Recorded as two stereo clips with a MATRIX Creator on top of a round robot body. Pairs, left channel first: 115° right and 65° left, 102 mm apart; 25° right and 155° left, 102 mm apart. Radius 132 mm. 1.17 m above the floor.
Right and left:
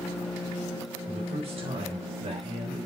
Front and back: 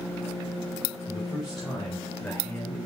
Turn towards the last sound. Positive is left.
turn(degrees=50)